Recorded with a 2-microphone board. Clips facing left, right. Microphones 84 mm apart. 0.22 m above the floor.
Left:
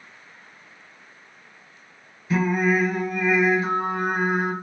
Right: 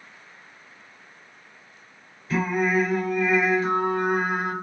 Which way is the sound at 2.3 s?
15° left (ahead or behind).